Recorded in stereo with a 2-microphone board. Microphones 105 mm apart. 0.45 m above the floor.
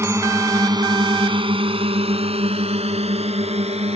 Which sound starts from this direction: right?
A drone, at 0.0 s.